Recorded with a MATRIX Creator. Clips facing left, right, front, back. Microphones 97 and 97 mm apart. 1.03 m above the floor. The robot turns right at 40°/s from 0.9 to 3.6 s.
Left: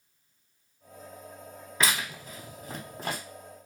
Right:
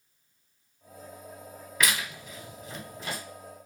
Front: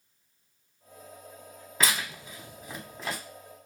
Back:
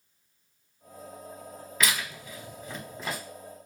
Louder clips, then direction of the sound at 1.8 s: Left 1 dB, even; 40° left.